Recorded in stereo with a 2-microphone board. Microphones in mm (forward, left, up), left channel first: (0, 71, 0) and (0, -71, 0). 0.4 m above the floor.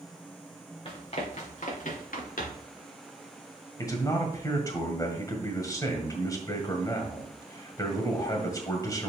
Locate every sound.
0.8 s running footsteps: 40° left (ahead or behind), 2.5 m; by 2.7 s 80° left, 3 m
3.8 s a man speaking: 25° left (ahead or behind), 1.7 m